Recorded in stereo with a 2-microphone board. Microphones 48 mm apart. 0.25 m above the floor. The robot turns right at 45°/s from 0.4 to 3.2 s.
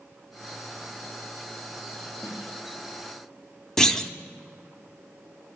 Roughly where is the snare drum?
Left.